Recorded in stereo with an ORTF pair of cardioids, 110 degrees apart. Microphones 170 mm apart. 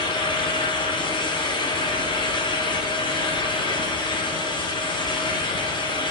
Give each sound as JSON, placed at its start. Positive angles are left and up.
{"t": 0.0, "sound": "a fan", "azimuth_deg": 30, "distance_m": 1.1}